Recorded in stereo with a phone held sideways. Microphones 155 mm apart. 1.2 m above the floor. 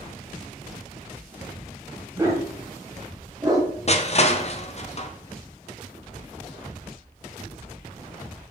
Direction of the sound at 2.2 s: 20° right (ahead or behind).